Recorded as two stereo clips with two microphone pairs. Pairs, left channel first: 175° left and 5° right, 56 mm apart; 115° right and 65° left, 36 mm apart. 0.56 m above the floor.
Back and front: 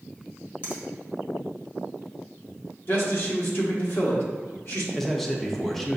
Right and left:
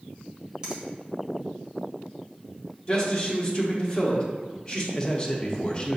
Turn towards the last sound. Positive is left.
turn(degrees=-110)